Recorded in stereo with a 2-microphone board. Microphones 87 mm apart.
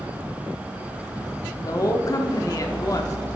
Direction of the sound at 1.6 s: 45° left (ahead or behind).